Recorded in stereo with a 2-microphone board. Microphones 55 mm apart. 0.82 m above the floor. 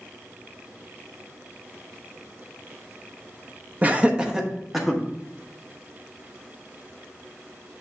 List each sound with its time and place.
3.8 s laughter: 30° right (ahead or behind), 0.8 m; by 5.0 s centre (ahead or behind), 1.5 m